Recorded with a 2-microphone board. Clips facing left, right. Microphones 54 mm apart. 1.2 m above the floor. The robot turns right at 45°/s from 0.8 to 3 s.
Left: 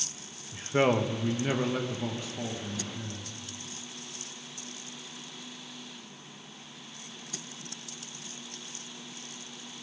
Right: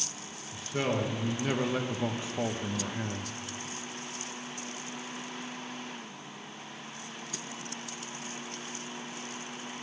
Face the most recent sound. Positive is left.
turn(degrees=-115)